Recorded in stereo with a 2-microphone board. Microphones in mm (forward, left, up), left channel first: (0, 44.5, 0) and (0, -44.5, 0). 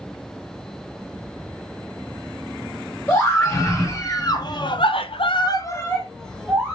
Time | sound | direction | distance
3.1 | a scream | 30° left (ahead or behind) | 1.9 m